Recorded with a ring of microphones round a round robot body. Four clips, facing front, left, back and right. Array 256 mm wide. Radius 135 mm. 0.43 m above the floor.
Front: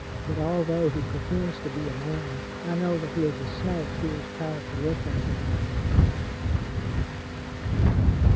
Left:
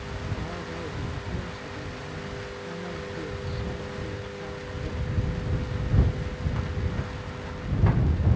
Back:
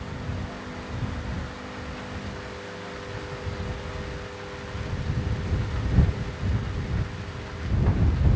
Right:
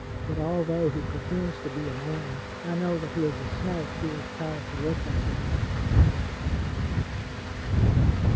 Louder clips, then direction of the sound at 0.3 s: Right 12 dB, front 11 dB; 35° right.